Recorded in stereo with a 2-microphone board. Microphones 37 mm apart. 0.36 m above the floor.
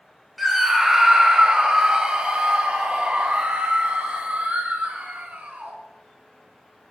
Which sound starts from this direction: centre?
A scream, at 0.4 s.